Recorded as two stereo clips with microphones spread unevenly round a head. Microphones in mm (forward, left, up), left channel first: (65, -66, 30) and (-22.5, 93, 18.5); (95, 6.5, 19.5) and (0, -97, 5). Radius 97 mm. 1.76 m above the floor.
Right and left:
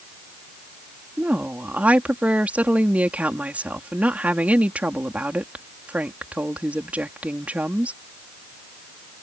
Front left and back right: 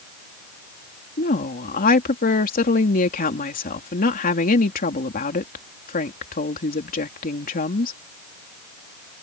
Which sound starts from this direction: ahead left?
A woman speaking, at 1.2 s.